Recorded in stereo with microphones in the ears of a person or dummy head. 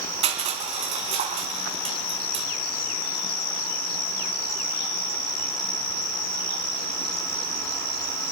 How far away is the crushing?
About 2 m.